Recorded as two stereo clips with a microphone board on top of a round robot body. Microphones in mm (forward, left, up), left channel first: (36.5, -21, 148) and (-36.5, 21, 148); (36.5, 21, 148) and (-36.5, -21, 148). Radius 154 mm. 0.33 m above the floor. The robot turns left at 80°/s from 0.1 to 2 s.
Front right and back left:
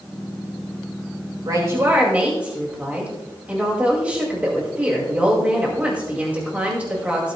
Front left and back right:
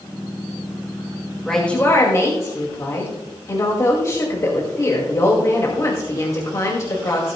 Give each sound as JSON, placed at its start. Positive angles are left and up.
{"t": 1.4, "sound": "a woman speaking", "azimuth_deg": 120, "distance_m": 2.5}